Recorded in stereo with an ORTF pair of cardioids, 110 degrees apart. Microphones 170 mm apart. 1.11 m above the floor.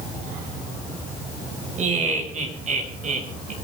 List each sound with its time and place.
1.8 s laughter: 45° right, 6 m